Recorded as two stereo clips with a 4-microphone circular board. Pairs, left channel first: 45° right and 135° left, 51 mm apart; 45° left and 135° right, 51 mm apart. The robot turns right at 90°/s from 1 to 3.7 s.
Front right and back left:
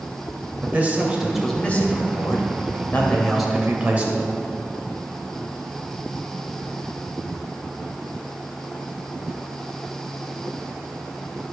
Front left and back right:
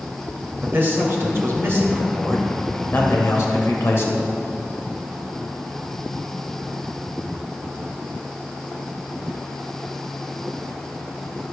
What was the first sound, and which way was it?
A man speaking, 170° right.